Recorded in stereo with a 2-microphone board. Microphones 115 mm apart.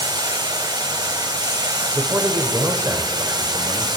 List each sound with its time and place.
0.0 s running water: 35° right (ahead or behind), 0.8 m
1.9 s a man speaking: 25° right (ahead or behind), 1.1 m